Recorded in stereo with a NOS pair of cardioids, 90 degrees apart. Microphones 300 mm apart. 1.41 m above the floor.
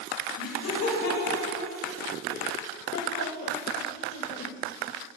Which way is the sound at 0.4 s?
65° left.